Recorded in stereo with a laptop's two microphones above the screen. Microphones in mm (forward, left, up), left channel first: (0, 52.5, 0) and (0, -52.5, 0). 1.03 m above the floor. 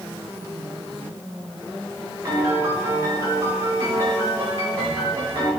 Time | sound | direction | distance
2.2 | a piano | 25° right (ahead or behind) | 2 m